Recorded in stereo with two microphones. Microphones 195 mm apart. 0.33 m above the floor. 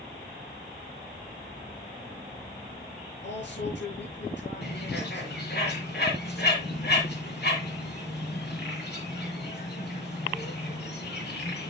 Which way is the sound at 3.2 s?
65° left (ahead or behind).